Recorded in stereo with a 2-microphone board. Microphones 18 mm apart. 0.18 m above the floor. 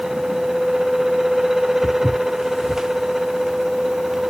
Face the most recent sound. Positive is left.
turn(degrees=-20)  # may be behind; listen again after turning